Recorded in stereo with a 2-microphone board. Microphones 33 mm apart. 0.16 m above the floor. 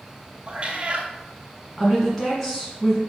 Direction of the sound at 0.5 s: 35° right (ahead or behind).